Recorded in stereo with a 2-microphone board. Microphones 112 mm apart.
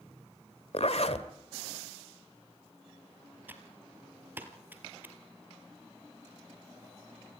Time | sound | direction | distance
0.7 | a zipper | 65° left (ahead or behind) | 1.7 m
3.5 | typing on a keyboard | 15° right (ahead or behind) | 2.5 m